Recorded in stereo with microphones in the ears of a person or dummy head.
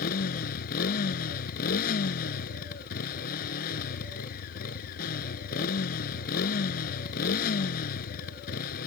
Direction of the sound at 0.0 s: 50° left (ahead or behind).